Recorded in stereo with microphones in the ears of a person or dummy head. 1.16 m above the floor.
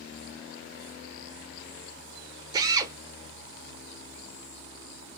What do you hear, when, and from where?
2.5 s a drill: 20° right (ahead or behind), 1.1 m